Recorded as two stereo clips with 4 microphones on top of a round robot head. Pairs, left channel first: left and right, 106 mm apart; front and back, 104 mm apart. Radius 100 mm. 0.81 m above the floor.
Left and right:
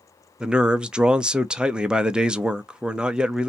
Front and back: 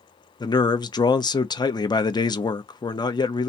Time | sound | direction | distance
0.4 | a man speaking | 10° right | 0.6 m